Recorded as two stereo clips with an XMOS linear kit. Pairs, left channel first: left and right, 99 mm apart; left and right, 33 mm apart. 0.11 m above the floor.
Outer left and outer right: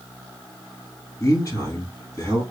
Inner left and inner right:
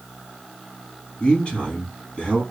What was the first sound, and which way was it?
A man speaking, 30° left (ahead or behind).